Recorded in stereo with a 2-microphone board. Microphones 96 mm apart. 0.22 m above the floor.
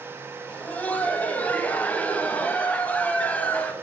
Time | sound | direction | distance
0.5 | laughter | 15° left (ahead or behind) | 1.0 m